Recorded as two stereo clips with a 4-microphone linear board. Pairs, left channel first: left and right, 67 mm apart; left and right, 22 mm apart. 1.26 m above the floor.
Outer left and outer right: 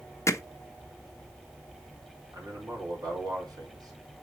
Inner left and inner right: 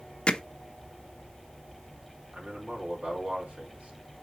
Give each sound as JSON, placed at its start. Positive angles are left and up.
{"t": 0.3, "sound": "hammering", "side_deg": 45, "distance_m": 0.7}
{"t": 2.3, "sound": "a man speaking", "side_deg": -85, "distance_m": 4.5}